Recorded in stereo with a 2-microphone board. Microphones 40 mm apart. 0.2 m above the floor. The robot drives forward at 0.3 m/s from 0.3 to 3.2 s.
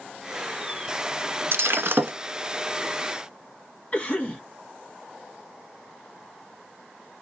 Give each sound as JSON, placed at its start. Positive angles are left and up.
{"t": 1.5, "sound": "breaking glass", "side_deg": -70, "distance_m": 0.6}
{"t": 3.9, "sound": "a cough", "side_deg": 25, "distance_m": 1.5}